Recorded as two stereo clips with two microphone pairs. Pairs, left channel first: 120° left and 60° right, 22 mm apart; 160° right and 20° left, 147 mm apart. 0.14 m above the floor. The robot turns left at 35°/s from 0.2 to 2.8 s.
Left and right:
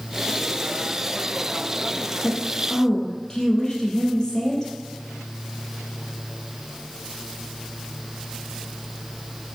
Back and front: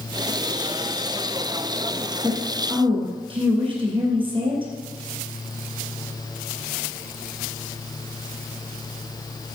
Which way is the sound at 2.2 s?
90° left.